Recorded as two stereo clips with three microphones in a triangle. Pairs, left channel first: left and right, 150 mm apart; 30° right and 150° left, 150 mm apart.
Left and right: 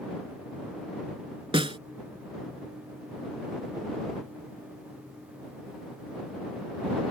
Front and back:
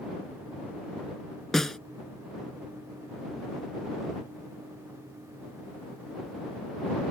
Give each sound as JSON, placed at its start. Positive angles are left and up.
{"t": 1.5, "sound": "a snare drum", "azimuth_deg": -115}